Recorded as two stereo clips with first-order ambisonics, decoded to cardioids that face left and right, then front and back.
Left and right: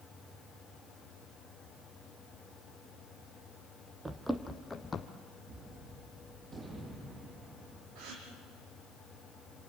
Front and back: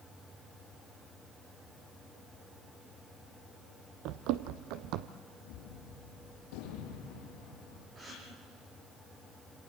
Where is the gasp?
110° right, 5.5 m.